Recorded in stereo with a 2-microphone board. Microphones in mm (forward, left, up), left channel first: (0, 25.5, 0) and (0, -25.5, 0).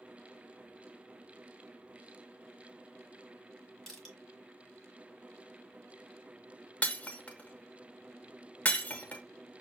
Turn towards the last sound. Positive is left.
turn(degrees=25)  # may be behind; listen again after turning